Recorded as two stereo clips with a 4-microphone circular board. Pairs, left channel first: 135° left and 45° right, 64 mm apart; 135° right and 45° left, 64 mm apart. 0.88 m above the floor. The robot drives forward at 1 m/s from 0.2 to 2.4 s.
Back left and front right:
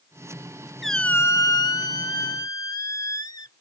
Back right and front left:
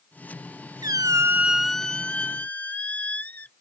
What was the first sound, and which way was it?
A squeak, 45° left.